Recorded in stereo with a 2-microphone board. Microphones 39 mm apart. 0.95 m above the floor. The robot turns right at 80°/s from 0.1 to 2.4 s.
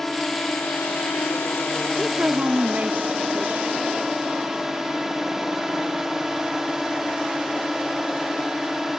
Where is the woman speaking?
160° right; by 4.0 s 125° right.